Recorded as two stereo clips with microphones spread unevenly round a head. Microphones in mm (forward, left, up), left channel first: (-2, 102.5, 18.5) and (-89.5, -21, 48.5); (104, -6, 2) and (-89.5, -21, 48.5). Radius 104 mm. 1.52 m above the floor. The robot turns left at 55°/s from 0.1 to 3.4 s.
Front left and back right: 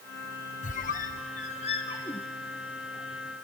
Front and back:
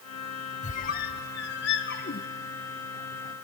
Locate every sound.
0.6 s a squeak: 60° left, 0.6 m; by 2.3 s 30° right, 0.6 m